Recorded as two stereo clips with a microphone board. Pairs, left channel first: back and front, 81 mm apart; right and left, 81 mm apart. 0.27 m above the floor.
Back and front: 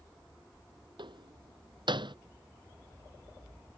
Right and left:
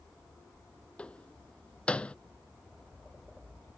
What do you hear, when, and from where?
1.0 s a door slam: 15° right